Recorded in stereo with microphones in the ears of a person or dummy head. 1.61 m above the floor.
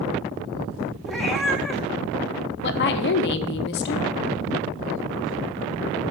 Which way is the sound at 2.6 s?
65° left (ahead or behind).